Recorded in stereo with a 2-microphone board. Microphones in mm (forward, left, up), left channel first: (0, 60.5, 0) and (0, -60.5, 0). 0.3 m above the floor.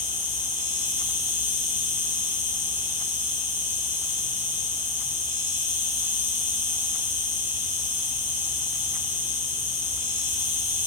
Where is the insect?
15° right (ahead or behind), 1.4 m.